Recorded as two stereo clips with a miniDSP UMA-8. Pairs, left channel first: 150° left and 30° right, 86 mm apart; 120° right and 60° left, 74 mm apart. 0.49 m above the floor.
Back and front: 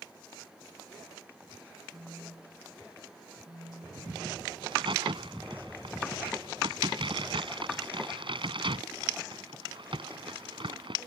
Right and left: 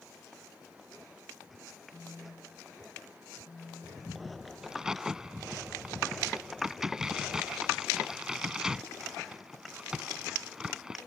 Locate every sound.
1.9 s a phone buzzing: 65° right
4.6 s a crack: 20° right